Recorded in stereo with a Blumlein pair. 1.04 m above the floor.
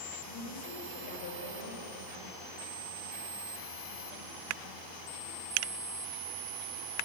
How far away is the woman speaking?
About 6 m.